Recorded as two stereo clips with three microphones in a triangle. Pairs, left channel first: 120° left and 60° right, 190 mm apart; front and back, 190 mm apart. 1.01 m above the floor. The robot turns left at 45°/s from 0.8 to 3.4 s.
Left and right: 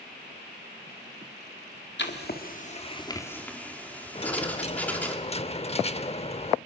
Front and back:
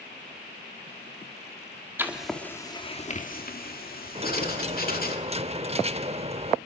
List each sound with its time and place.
2.0 s writing: 100° left, 2.5 m; by 5.2 s 40° left, 2.5 m
4.2 s a dropped coin: 150° left, 0.8 m